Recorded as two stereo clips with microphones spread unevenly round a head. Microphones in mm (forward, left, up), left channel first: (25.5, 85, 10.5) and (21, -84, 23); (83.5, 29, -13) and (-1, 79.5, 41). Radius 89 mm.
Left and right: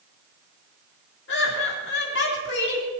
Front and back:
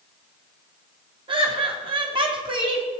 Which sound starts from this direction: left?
Laughter, at 1.3 s.